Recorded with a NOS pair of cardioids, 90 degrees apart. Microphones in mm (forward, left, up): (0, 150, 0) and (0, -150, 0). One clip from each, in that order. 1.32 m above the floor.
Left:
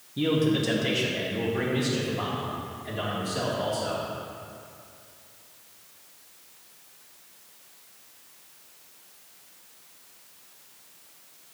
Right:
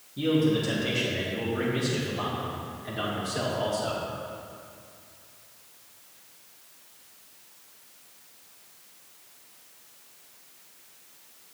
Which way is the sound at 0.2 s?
30° left.